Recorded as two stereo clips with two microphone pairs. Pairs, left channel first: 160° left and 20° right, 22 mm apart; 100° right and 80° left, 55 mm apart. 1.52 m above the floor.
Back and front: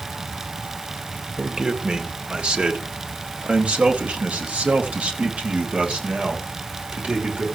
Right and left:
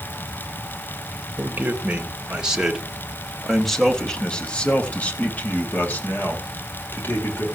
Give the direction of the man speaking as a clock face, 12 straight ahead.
11 o'clock.